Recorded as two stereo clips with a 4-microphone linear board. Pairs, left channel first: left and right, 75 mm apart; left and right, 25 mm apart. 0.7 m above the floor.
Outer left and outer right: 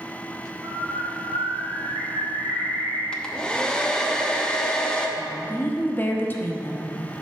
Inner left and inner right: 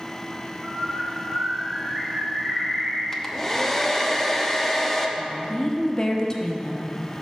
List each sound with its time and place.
0.6 s a bird: 65° right (ahead or behind), 2 m
3.1 s a hair dryer: 10° left (ahead or behind), 0.8 m
5.2 s a woman speaking: 25° left (ahead or behind), 1.0 m